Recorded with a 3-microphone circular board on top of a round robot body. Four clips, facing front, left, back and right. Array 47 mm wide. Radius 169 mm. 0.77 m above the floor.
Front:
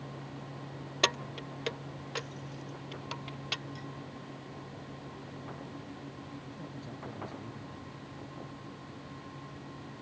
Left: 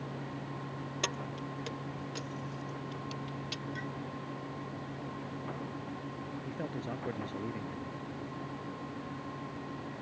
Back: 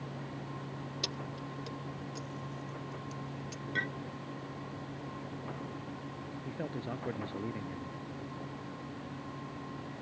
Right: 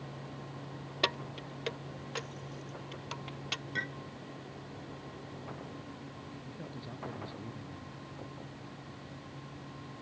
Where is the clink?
150° right.